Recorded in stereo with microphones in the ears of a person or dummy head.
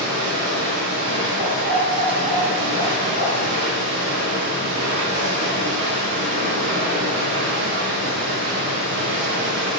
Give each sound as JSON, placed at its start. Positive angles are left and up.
{"t": 0.0, "sound": "running water", "side_deg": -65, "distance_m": 1.5}
{"t": 1.4, "sound": "a dog barking", "side_deg": -55, "distance_m": 2.5}